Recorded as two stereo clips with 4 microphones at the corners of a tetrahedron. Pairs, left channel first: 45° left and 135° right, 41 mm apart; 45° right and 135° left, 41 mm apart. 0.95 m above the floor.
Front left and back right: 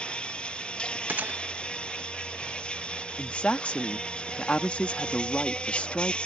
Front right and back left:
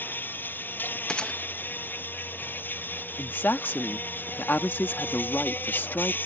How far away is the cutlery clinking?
No cutlery clinking in this recording.